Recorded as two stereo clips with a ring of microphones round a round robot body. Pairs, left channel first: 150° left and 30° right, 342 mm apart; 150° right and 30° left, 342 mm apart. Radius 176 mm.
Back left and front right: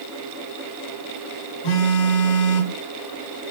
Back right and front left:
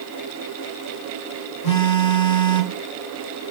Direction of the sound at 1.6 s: 175° left.